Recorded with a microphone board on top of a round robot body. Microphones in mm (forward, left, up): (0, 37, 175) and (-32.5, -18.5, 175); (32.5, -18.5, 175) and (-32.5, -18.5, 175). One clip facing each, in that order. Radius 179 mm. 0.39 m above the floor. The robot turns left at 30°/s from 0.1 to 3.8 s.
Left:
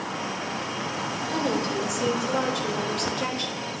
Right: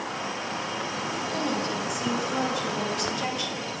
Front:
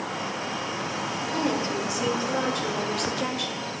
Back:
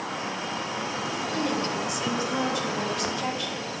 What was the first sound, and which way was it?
A woman speaking, 80° left.